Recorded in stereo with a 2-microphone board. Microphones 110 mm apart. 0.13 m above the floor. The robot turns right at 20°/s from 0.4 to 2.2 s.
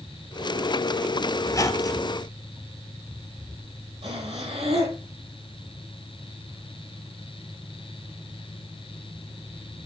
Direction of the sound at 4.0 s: 70° right (ahead or behind).